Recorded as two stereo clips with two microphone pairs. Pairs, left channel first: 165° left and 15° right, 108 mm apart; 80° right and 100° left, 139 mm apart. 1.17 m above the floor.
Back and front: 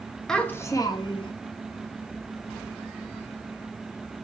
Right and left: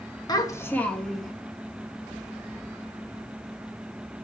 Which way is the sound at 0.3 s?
110° right.